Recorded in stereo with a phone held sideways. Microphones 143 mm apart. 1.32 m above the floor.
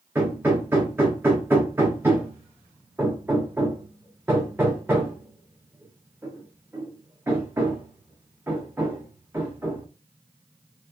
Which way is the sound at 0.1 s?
15° right (ahead or behind).